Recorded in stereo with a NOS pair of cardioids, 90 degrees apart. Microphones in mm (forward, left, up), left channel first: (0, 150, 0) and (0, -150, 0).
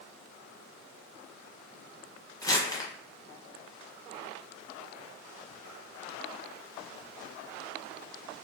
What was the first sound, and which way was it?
Crumpling, 10° left.